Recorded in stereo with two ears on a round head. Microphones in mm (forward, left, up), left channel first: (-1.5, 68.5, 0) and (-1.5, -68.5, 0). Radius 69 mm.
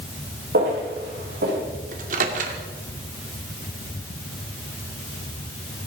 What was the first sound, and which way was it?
Footsteps, 60° right (ahead or behind).